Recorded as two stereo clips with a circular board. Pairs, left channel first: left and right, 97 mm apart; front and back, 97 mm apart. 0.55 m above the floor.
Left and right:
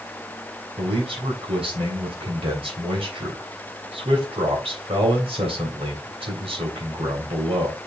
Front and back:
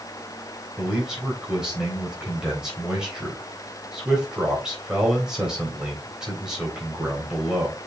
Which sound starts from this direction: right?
A man speaking, at 0.8 s.